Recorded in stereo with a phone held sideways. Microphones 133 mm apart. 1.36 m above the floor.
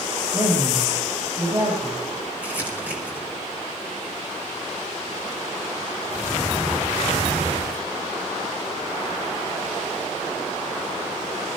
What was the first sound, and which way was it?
A woman speaking, 35° right (ahead or behind).